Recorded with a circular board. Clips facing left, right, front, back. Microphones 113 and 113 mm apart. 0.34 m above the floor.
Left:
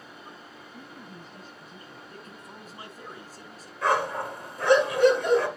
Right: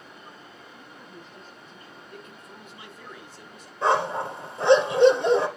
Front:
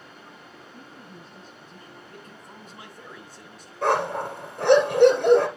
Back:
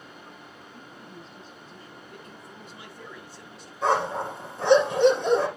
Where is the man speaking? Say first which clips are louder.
Even, even; 40° left, 2.5 m.